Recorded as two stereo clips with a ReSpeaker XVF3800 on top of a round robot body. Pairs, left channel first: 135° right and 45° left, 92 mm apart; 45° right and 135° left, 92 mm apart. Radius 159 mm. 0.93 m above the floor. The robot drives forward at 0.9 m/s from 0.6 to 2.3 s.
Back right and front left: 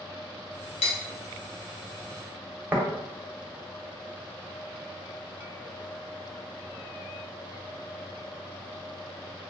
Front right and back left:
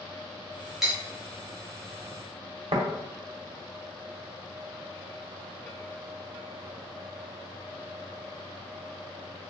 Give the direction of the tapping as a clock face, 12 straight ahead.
8 o'clock.